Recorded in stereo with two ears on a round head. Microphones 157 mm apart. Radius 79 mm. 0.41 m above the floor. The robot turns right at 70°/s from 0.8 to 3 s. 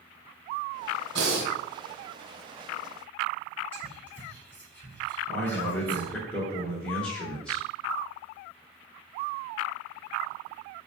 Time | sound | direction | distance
1.1 | breathing | 70° right (ahead or behind) | 1.0 m
3.7 | whispering | 10° left (ahead or behind) | 1.3 m
5.3 | a man speaking | 5° left (ahead or behind) | 0.8 m